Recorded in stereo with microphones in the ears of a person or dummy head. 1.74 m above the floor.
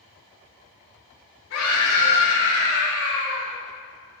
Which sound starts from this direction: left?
A scream, at 1.5 s.